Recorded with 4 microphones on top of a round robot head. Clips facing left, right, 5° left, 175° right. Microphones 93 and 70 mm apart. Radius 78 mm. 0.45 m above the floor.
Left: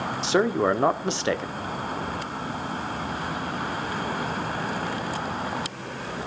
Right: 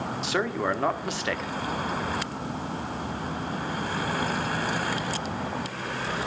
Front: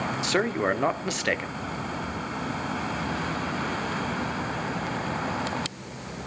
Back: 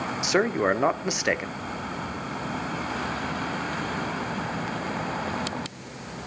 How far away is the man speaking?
About 1.0 m.